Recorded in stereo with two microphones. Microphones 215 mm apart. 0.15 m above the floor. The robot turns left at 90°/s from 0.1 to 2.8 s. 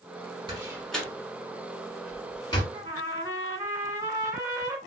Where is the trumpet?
20° right (ahead or behind), 1.0 m; by 4.8 s 15° right (ahead or behind), 1.0 m.